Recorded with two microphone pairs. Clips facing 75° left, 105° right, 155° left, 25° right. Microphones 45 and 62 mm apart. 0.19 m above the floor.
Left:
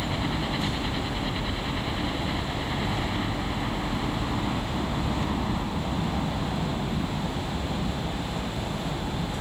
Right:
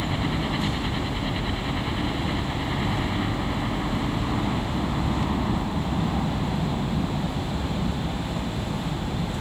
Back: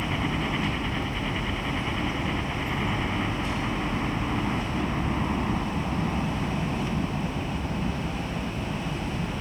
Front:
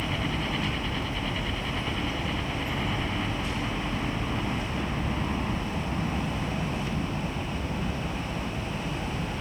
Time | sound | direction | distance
0.0 | a helicopter | 170° right | ?